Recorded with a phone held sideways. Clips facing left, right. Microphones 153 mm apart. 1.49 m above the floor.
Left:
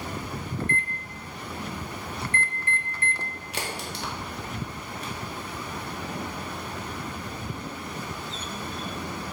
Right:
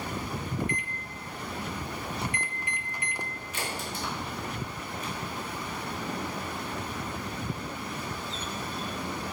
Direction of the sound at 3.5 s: 70° left (ahead or behind).